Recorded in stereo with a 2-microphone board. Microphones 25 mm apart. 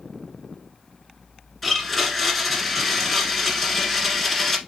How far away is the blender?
About 1.2 m.